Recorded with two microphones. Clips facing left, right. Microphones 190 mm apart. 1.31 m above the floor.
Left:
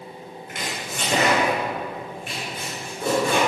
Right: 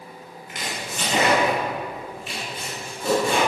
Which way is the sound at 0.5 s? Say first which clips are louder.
Even; 55° left (ahead or behind).